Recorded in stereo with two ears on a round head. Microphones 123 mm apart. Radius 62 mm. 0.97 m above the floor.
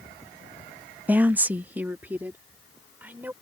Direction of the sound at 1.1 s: 10° right (ahead or behind).